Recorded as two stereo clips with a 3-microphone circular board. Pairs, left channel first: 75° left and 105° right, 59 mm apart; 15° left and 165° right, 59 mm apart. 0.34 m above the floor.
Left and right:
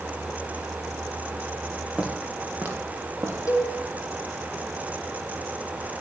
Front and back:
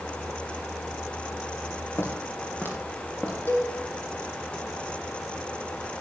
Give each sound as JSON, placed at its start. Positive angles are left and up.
{"t": 2.0, "sound": "footsteps", "azimuth_deg": -30, "distance_m": 3.5}
{"t": 3.5, "sound": "a cowbell", "azimuth_deg": 60, "distance_m": 5.0}